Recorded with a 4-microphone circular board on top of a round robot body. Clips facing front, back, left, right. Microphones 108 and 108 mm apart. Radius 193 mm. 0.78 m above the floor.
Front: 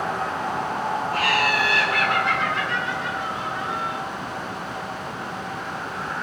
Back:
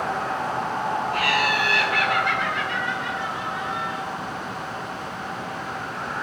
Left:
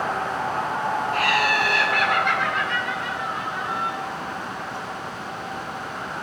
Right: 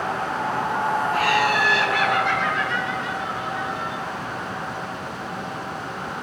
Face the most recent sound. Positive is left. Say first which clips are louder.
# front 2 dB, right 1 dB
turn(degrees=50)